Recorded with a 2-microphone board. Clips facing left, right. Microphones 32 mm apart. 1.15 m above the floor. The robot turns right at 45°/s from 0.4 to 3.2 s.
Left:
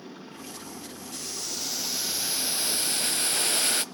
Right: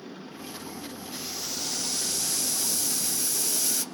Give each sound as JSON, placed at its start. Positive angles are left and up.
{"t": 1.1, "sound": "boiling", "azimuth_deg": -20, "distance_m": 0.6}